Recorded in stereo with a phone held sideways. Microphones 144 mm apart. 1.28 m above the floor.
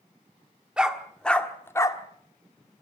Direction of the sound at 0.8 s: 5° right (ahead or behind).